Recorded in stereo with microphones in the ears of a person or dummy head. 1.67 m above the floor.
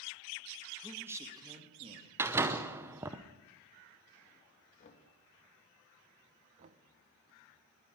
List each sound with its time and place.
0.8 s a man speaking: 10° right (ahead or behind), 2.5 m; by 2.1 s 40° right (ahead or behind), 3 m
2.2 s a door slam: 5° right (ahead or behind), 0.7 m
4.8 s knocking: 40° left (ahead or behind), 2.5 m
6.6 s knocking: 30° right (ahead or behind), 1.0 m